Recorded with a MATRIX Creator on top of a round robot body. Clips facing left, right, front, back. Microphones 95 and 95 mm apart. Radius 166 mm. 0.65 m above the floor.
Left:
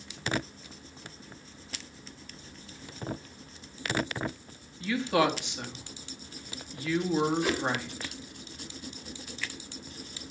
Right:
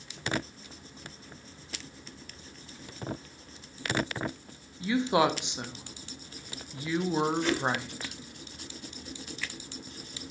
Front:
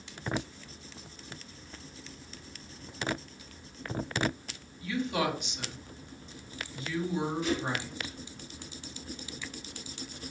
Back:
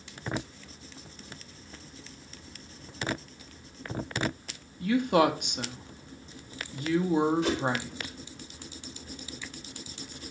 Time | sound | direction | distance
4.8 | a woman speaking | 160° right | 1.4 m
7.4 | a whoosh | 170° left | 1.8 m